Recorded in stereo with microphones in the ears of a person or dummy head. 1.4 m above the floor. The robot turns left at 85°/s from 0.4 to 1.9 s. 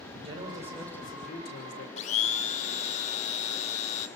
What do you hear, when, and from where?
0.2 s a man speaking: 140° right, 6 m; by 1.9 s 95° left, 6 m
2.0 s a blender: 40° left (ahead or behind), 2.5 m